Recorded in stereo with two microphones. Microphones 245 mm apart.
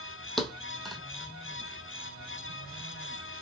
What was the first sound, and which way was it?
A thud, centre (ahead or behind).